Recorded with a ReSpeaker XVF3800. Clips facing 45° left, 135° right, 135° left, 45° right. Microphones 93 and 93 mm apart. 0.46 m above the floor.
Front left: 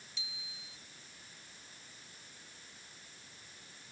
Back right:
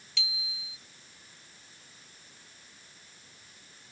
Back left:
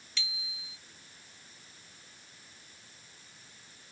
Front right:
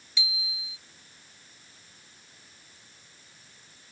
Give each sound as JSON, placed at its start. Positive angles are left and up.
{"t": 0.2, "sound": "a bicycle bell", "azimuth_deg": -120}